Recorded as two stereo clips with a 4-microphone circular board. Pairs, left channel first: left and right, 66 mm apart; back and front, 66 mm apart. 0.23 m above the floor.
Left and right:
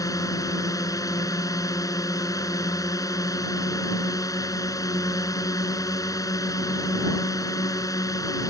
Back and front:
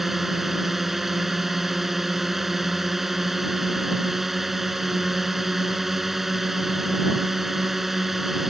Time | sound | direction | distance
0.0 | a drone | 85° left | ?